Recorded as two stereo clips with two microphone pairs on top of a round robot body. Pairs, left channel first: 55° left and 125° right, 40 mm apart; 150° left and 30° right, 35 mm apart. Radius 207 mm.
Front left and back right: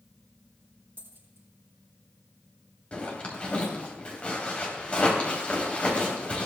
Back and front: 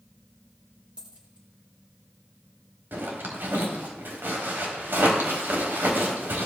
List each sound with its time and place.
1.0 s a dropped coin: 90° right, 6.5 m
2.9 s a zipper: 10° right, 3.5 m